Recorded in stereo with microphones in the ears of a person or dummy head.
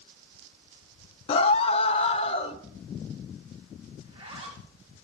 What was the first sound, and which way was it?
A scream, 35° left (ahead or behind).